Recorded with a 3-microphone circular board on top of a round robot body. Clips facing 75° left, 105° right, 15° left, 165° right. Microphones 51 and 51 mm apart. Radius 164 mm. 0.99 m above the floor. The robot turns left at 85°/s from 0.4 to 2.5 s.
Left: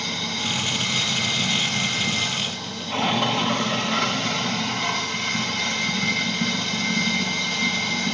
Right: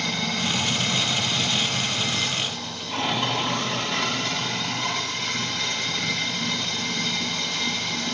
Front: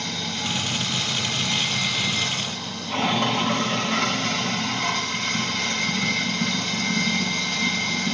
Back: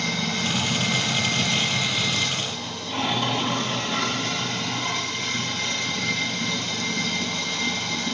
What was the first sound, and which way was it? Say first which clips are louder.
Running water: right 2 dB, back 3 dB; 125° right.